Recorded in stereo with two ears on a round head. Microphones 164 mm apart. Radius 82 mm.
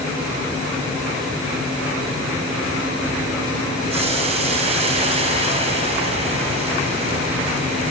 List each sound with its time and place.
3.9 s boiling: 35° right (ahead or behind), 5.5 m